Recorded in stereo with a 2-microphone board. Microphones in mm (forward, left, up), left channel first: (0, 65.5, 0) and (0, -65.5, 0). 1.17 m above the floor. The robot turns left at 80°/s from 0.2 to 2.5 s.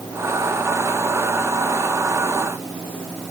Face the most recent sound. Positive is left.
No sound to turn to.